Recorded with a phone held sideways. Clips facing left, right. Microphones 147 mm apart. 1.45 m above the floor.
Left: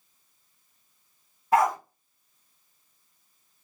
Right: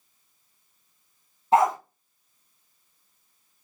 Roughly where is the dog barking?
Right.